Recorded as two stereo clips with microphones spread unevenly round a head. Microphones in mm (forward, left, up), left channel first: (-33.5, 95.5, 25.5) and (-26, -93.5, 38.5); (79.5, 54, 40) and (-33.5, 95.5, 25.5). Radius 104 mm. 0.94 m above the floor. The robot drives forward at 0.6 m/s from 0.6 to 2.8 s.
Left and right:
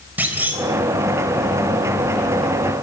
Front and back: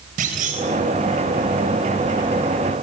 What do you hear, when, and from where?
0.2 s a clunk: 170° right, 4 m